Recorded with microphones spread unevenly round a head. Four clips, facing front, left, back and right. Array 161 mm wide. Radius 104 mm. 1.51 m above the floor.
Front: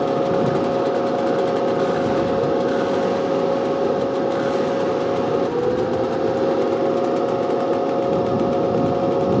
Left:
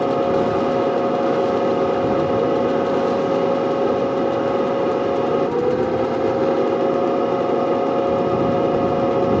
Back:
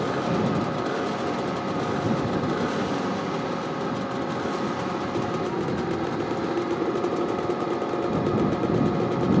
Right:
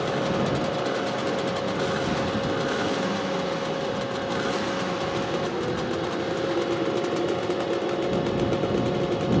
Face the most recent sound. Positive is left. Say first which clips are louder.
# left 8 dB, front 6 dB
turn(degrees=70)